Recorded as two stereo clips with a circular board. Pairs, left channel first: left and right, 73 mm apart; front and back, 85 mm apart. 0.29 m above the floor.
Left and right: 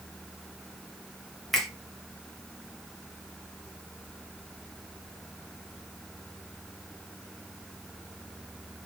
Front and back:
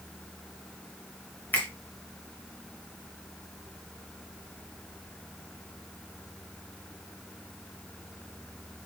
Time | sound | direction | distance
1.5 | a finger snap | straight ahead | 1.0 m